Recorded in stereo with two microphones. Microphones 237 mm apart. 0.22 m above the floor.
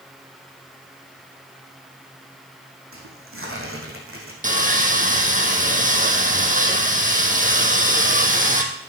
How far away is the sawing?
About 2.5 m.